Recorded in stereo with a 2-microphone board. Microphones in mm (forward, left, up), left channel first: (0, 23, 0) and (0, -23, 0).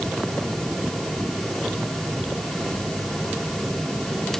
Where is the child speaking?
No child speaking in this recording.